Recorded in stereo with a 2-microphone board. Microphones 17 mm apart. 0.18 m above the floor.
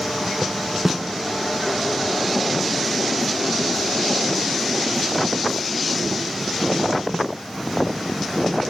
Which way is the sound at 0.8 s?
20° right (ahead or behind).